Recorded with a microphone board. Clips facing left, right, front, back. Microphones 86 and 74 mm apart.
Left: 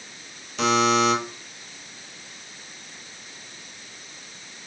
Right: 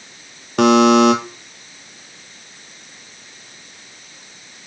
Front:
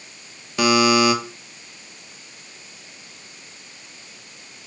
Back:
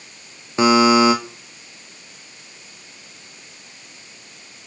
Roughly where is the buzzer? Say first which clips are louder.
Right 9 dB, back 3 dB; behind right.